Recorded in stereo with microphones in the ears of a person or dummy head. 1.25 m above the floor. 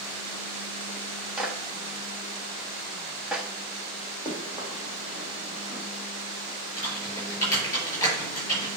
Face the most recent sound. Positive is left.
turn(degrees=20)  # may be behind; listen again after turning